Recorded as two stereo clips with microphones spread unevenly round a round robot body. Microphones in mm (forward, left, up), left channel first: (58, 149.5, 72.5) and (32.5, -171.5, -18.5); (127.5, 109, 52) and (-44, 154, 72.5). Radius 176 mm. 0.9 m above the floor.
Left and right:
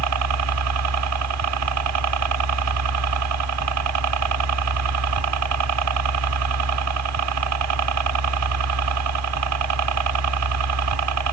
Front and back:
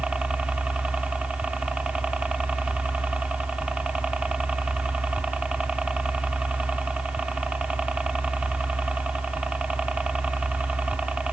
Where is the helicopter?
110° right.